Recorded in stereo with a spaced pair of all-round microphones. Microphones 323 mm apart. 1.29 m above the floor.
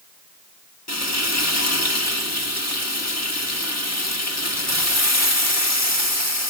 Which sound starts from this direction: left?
Frying, at 0.9 s.